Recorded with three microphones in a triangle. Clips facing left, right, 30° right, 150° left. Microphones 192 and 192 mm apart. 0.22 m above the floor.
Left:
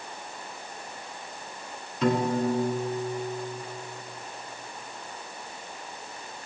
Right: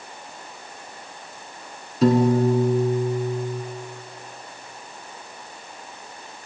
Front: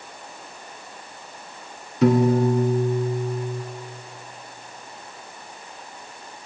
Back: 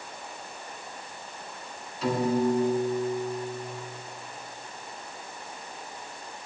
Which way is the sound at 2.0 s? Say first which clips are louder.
Right 7 dB, front 7 dB; 40° right.